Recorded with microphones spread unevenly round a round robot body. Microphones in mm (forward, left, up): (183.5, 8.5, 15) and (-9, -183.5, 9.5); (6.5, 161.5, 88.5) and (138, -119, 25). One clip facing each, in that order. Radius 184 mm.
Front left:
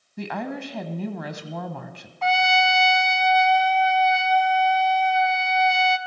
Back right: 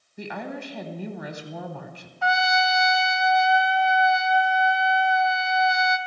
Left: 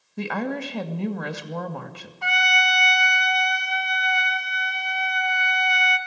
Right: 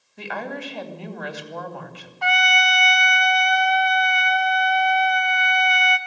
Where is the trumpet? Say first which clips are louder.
Front left 2 dB, right 4 dB; 55° right, 1.8 m.